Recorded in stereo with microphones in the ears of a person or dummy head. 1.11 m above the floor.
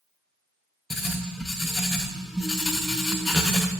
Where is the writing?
5° right (ahead or behind), 0.6 m.